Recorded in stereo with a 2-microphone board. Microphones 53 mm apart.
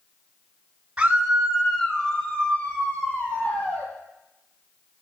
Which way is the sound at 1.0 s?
15° right (ahead or behind).